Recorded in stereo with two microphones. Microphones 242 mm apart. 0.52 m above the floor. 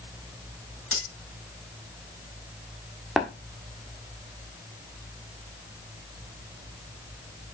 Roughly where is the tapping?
Centre.